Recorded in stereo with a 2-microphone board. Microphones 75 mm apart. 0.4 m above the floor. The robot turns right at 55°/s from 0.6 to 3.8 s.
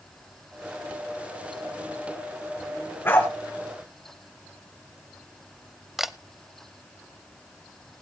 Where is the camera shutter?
5° right (ahead or behind), 0.6 m.